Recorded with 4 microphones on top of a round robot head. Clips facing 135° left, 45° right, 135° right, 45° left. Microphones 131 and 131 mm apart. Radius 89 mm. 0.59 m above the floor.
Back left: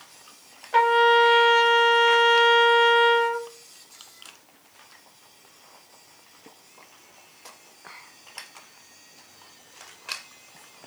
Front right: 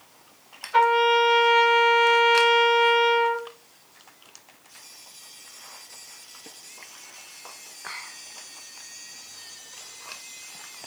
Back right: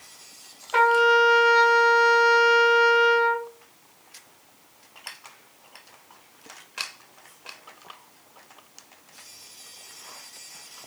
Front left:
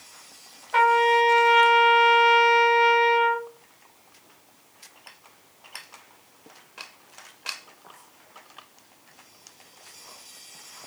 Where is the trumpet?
160° left, 3 m.